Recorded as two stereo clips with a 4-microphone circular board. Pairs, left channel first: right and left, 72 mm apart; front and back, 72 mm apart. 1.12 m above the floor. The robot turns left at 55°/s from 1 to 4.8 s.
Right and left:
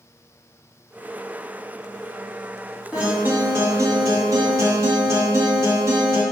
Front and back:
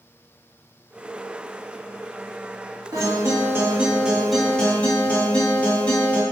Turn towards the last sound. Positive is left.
turn(degrees=65)